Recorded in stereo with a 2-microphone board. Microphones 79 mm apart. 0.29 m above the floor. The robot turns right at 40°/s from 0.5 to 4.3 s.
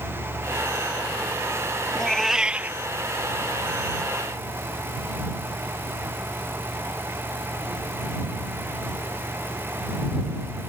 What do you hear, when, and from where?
1.9 s a cat meowing: 170° left; by 2.8 s 155° right